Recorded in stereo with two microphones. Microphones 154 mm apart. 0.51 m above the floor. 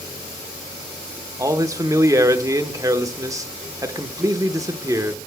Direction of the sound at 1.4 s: 20° right (ahead or behind).